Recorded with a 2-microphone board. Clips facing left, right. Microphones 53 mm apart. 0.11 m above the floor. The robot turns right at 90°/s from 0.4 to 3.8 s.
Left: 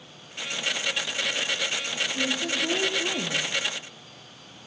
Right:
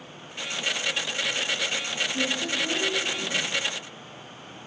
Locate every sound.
2.1 s a woman speaking: 25° right, 3.5 m; by 3.5 s 95° left, 3.5 m